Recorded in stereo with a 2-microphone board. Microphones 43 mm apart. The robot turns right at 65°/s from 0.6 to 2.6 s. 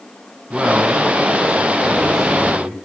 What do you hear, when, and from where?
0.5 s a man speaking: 15° right (ahead or behind), 1.2 m; by 2.9 s 5° right (ahead or behind), 1.2 m